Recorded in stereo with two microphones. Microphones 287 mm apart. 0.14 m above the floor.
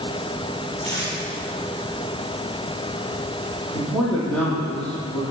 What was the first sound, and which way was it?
Tape being pulled, 40° left (ahead or behind).